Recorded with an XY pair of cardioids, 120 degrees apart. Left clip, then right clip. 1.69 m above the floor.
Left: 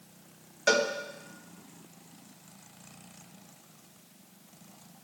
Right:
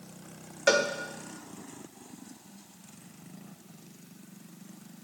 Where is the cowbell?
15° right, 1.9 m.